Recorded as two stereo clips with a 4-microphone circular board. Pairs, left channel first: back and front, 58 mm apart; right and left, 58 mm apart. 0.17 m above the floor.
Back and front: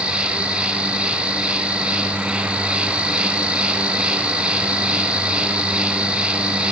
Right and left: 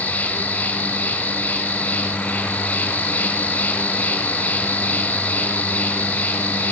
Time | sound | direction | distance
0.0 | an insect | 55° right | 1.0 m